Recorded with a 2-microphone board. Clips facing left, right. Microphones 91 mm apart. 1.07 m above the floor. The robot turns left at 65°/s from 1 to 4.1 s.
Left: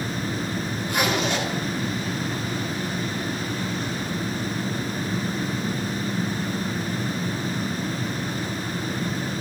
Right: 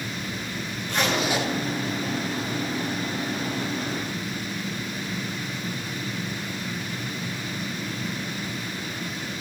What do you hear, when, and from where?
0.9 s a zipper: 10° left (ahead or behind), 3 m; by 1.5 s 20° right (ahead or behind), 3 m